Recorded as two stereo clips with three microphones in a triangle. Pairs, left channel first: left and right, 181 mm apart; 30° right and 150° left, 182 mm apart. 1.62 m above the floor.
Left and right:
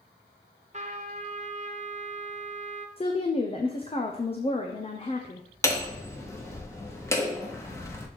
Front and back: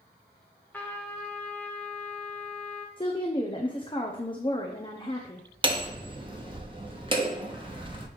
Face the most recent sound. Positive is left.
turn(degrees=145)